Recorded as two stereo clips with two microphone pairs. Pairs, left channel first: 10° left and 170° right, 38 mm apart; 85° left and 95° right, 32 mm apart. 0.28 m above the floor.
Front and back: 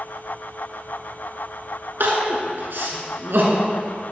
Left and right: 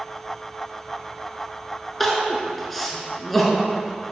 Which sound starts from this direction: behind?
Crying, at 2.0 s.